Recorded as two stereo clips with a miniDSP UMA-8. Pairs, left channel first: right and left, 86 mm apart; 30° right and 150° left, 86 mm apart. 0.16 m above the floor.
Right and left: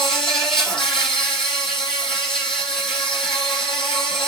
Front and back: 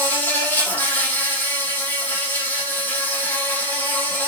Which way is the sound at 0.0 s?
95° right.